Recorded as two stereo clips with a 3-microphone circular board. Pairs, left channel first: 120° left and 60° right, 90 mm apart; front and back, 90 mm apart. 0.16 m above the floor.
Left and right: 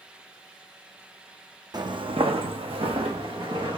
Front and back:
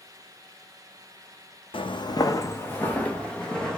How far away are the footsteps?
About 0.5 m.